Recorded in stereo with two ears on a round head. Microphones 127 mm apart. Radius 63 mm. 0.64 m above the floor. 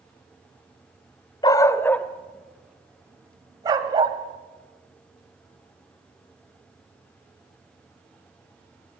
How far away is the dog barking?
About 1.0 m.